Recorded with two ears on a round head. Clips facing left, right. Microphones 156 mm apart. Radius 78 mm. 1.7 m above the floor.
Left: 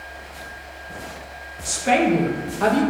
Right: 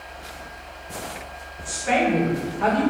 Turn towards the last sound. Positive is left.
turn(degrees=50)  # may be behind; listen again after turning